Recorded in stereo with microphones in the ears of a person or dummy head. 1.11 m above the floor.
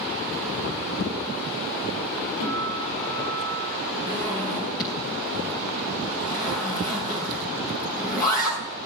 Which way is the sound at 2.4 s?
75° left (ahead or behind).